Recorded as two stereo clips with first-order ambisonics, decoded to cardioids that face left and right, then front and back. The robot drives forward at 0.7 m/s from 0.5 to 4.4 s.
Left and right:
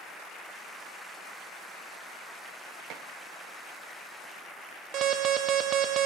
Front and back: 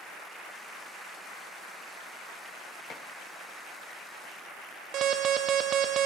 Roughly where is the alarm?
Behind right.